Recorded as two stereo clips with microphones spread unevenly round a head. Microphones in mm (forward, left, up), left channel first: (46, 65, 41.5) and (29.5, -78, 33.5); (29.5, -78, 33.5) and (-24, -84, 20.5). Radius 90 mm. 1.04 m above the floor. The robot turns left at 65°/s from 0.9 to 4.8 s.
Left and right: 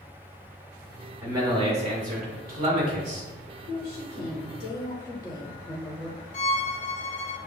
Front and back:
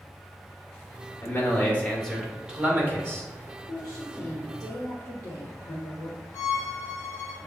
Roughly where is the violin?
Ahead left.